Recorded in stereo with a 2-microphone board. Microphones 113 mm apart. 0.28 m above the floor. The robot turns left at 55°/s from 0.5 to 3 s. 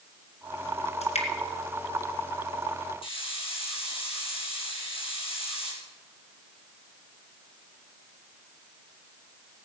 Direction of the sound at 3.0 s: 55° left (ahead or behind).